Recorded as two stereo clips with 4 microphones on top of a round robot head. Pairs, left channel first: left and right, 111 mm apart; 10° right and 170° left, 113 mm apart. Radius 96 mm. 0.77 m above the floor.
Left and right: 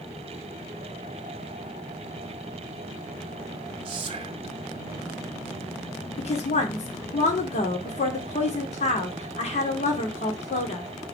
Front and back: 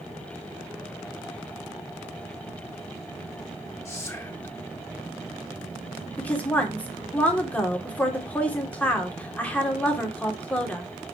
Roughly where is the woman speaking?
Ahead left.